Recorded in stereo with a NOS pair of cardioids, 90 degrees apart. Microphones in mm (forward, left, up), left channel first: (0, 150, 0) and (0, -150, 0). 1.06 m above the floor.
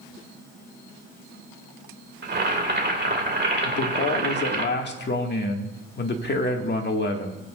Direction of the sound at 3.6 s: 35° left.